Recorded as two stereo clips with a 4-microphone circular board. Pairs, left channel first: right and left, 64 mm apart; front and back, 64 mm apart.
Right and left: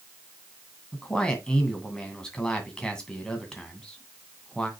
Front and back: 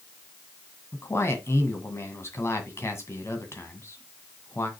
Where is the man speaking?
20° right, 2 m.